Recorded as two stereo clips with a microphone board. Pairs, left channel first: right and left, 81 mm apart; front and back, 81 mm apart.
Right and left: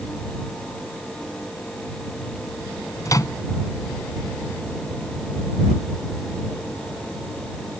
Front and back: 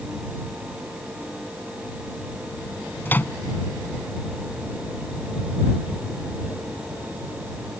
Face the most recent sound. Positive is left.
turn(degrees=-60)